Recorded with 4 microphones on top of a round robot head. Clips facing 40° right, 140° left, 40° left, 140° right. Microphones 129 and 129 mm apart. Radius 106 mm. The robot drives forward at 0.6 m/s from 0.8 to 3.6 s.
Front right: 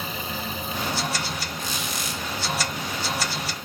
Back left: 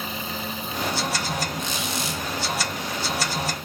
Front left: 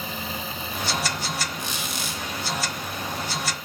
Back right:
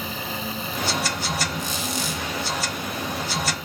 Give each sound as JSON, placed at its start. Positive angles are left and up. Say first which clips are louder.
{"t": 1.6, "sound": "a squeak", "louder": "back left 3 dB, back right 4 dB", "azimuth_deg": 70, "distance_m": 6.0}